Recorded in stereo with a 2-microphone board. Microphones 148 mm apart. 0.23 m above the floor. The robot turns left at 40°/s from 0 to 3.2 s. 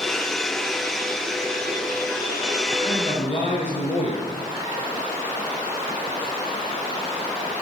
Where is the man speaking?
35° left (ahead or behind), 4.5 m; by 4.3 s 50° left (ahead or behind), 4.5 m.